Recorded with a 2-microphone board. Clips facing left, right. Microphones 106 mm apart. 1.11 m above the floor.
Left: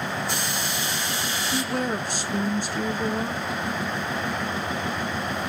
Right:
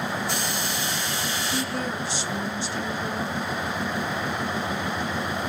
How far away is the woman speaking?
About 0.8 m.